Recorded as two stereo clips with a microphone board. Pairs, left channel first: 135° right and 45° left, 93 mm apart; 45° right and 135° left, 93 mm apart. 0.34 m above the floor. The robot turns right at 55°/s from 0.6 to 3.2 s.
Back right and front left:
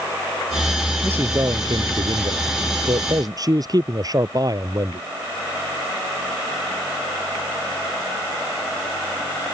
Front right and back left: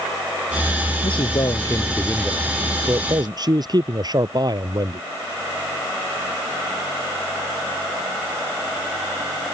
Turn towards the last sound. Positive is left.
turn(degrees=90)